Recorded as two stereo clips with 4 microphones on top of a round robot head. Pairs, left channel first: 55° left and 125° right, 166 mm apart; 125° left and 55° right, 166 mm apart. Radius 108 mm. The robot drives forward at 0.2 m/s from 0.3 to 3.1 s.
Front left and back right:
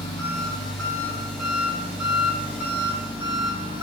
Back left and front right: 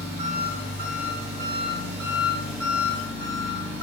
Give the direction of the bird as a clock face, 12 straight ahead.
No bird in this recording.